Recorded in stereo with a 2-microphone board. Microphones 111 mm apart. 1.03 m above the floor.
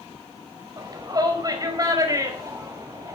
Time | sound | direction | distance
0.8 | a shout | 35° right (ahead or behind) | 5 m